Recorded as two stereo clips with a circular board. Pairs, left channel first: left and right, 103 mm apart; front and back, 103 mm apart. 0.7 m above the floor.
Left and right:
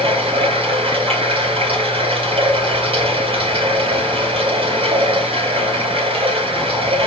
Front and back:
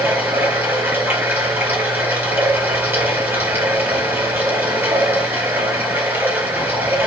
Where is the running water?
115° right, 3.5 m.